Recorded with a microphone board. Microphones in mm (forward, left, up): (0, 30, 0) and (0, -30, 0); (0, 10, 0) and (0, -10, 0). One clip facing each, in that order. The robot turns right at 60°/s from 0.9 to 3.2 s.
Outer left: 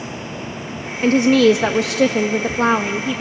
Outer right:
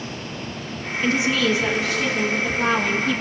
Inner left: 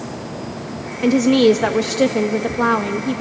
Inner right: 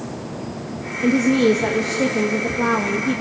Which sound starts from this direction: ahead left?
A woman speaking, at 1.0 s.